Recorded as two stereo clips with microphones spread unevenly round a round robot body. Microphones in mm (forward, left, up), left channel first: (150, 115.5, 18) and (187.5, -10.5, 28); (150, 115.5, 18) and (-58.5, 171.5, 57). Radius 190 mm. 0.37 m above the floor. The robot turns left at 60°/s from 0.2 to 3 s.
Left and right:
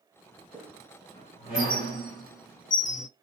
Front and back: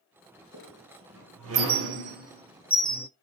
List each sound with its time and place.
0.5 s a squeak: 145° right, 1.3 m; by 3.1 s 65° left, 1.3 m